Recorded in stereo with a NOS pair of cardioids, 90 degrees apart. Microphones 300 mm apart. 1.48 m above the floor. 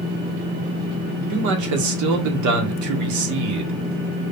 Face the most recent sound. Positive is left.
turn(degrees=-70)